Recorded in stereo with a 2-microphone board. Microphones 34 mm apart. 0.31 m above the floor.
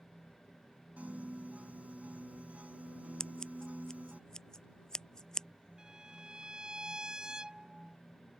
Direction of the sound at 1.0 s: 45° right (ahead or behind).